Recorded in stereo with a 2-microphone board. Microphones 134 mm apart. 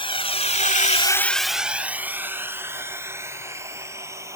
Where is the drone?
40° left (ahead or behind); by 4.4 s 20° right (ahead or behind).